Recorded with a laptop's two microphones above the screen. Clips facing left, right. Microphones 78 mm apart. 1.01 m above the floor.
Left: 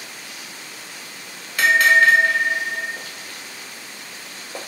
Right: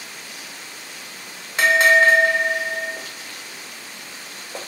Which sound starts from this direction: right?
A bell, at 1.6 s.